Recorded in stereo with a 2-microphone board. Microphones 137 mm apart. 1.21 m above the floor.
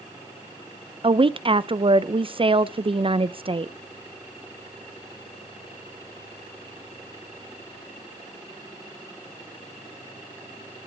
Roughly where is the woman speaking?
Right.